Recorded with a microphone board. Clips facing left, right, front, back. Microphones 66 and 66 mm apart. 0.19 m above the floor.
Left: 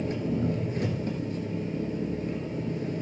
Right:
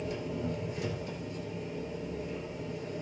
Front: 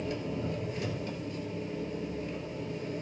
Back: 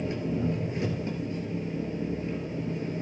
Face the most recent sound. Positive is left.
turn(degrees=120)